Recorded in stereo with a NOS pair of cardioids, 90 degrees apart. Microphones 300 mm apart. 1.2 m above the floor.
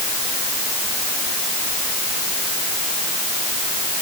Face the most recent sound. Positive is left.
No sound to turn to.